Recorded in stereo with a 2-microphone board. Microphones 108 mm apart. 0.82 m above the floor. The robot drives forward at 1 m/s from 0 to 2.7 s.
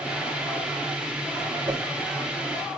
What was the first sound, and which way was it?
A whoosh, 40° right (ahead or behind).